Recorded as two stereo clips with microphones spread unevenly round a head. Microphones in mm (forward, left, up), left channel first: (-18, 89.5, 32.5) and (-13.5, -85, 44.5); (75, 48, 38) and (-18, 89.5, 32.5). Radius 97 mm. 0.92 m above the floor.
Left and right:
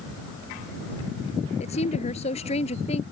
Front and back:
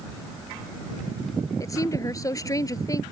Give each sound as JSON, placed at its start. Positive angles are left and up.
{"t": 1.6, "sound": "a woman speaking", "azimuth_deg": 35}